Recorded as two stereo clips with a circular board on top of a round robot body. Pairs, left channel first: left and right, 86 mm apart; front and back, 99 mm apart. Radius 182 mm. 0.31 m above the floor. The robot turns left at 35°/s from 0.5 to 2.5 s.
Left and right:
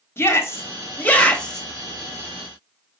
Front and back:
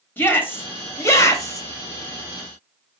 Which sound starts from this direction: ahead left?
A shout, at 0.2 s.